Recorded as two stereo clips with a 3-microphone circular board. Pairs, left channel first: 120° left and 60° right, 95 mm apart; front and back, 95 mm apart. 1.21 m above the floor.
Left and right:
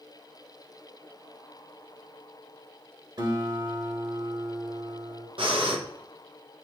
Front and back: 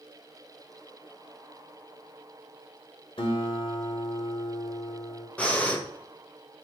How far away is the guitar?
About 1.8 m.